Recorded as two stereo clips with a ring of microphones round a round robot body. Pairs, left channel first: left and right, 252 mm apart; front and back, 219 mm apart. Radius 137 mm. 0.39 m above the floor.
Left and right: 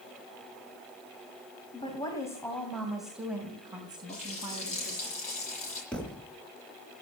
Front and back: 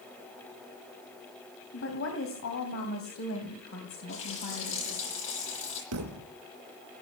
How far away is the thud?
About 2.0 m.